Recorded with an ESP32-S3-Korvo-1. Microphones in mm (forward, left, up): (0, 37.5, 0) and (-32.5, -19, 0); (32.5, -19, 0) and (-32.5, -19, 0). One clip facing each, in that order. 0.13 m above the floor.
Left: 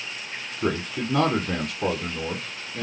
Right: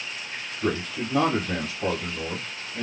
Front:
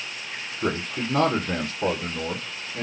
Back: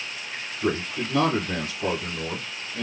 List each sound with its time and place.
0.6 s a man speaking: 50° left, 2.5 m